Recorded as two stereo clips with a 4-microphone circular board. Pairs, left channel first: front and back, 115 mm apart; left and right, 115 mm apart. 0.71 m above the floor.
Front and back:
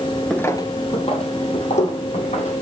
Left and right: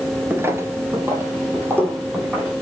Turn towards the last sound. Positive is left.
turn(degrees=-20)